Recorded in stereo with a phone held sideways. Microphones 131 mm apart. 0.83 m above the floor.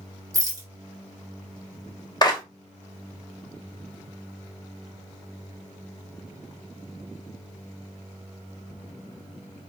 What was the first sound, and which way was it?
A rattle, 30° right (ahead or behind).